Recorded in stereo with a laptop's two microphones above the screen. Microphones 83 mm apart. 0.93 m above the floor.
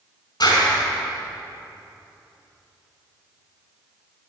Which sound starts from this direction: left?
A clap, at 0.4 s.